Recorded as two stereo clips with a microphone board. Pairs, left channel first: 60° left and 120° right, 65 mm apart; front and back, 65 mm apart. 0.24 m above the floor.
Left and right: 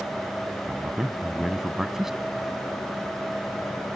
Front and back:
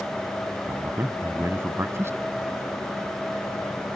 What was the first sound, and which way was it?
A man speaking, 155° left.